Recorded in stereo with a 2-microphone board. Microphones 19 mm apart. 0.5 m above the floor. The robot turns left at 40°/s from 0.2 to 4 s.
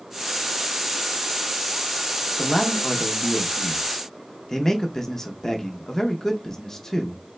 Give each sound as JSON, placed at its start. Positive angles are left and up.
{"t": 2.4, "sound": "a man speaking", "side_deg": 10, "distance_m": 0.7}